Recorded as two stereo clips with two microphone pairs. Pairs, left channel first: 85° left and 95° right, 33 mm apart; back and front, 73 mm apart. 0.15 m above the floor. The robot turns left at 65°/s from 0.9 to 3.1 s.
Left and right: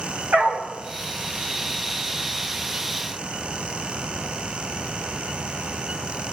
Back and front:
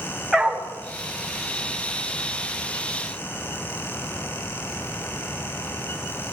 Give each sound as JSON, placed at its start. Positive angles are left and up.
{"t": 0.3, "sound": "a dog barking", "azimuth_deg": -85, "distance_m": 5.5}